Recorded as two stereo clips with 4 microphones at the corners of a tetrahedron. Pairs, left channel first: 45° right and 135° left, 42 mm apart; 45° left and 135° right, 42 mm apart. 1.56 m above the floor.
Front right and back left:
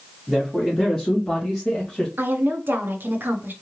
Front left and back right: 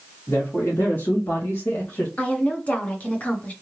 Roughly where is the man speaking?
Ahead left.